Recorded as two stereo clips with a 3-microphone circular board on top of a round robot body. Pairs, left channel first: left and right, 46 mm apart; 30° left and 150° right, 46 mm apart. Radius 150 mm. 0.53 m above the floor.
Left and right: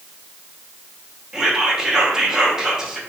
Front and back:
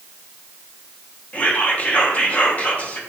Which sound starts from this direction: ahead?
Whispering, at 1.3 s.